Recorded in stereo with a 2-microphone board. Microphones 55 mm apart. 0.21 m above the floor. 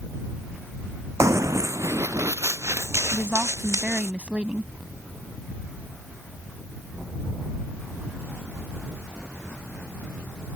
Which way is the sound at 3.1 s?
20° right (ahead or behind).